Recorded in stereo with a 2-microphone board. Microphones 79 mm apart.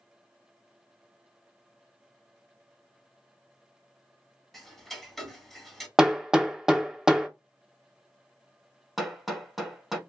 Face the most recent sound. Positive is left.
turn(degrees=-5)  # may be behind; listen again after turning